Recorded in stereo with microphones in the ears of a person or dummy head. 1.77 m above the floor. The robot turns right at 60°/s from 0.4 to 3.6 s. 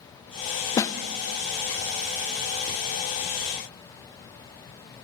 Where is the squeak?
I don't hear a squeak.